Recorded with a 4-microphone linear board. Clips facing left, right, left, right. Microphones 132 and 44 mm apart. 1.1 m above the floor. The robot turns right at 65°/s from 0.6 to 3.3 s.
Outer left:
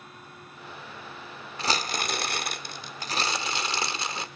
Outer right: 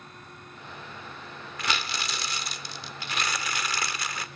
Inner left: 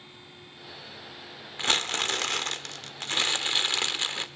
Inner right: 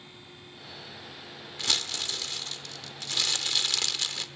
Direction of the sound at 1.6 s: 35° left.